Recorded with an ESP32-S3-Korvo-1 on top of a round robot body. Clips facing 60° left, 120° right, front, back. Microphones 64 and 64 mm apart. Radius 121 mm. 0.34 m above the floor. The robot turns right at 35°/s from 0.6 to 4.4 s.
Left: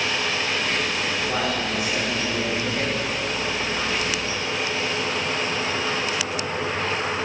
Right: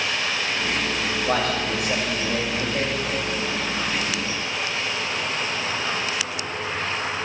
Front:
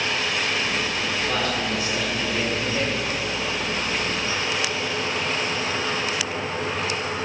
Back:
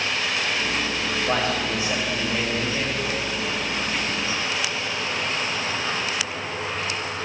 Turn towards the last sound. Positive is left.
turn(degrees=-25)